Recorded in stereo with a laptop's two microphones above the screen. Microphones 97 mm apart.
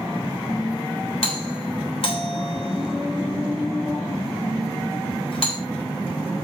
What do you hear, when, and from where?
1.2 s a doorbell: 65° left (ahead or behind), 3.5 m